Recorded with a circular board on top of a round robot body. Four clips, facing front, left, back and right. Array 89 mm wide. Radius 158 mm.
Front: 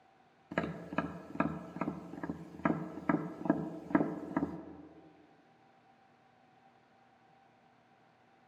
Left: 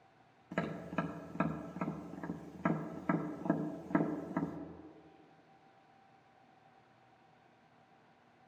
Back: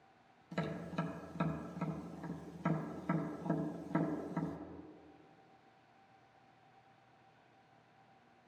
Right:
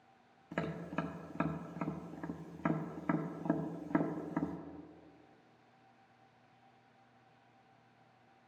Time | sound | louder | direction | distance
0.5 | tapping | left 1 dB, front 4 dB | 5° left | 0.9 m